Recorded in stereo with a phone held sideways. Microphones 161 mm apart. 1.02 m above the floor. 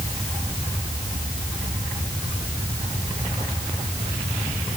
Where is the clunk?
No clunk in this recording.